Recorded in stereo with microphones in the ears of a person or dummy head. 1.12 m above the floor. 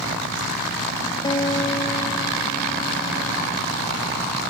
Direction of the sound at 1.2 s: 25° left (ahead or behind).